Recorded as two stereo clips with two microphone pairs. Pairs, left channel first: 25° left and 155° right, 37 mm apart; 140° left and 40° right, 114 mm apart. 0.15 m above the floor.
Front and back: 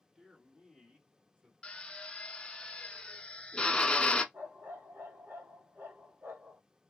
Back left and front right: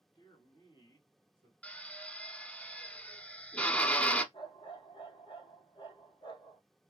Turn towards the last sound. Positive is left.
turn(degrees=-175)